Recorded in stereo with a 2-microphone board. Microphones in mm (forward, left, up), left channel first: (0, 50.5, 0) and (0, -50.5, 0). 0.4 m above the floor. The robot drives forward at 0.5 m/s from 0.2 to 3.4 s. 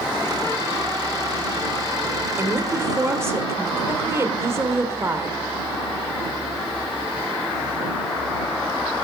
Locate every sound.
2.4 s a woman speaking: 25° right (ahead or behind), 1.6 m; by 5.4 s 30° right (ahead or behind), 1.4 m